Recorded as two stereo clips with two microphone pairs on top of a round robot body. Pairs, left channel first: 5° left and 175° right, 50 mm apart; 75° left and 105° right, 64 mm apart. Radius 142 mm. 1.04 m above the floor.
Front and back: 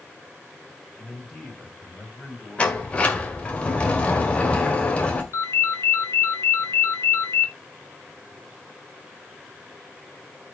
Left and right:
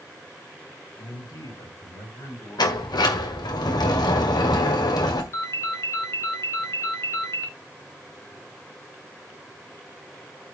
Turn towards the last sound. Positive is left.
turn(degrees=35)